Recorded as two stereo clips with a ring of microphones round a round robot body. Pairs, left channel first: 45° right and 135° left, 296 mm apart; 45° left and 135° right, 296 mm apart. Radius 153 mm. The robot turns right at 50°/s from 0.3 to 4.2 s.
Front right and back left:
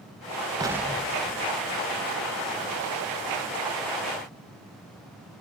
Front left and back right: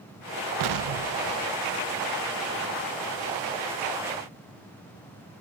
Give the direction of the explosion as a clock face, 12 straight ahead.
5 o'clock.